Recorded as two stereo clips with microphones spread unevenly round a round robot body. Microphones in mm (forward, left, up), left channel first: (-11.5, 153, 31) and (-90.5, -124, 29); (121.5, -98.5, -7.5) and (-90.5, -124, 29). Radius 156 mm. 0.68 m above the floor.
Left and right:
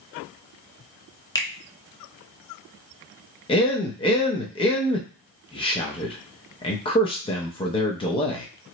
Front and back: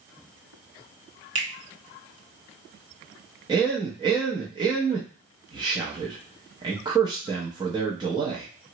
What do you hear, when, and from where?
1.4 s a finger snap: 150° left, 0.7 m
3.5 s a man speaking: 120° left, 0.5 m